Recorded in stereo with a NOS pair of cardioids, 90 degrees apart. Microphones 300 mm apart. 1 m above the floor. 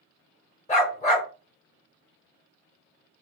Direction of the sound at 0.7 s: 25° left.